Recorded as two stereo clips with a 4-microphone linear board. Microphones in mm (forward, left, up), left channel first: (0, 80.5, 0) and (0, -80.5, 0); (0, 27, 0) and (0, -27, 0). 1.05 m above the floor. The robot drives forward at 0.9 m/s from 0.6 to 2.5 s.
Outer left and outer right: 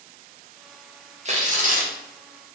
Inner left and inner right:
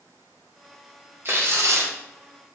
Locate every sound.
1.2 s tearing paper: 45° right (ahead or behind), 1.1 m; by 1.9 s 60° right (ahead or behind), 0.9 m